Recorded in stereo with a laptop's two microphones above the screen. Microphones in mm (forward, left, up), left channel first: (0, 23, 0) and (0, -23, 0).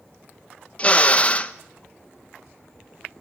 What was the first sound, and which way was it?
A drill, 25° left (ahead or behind).